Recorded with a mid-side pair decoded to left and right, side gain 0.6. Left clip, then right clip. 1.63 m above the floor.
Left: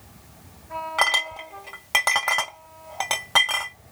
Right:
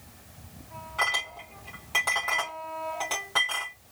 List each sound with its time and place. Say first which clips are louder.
1.0 s a clink: left 5 dB; 60° left, 2 m